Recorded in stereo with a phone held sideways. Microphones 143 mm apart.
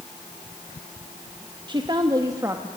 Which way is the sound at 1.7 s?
35° right (ahead or behind).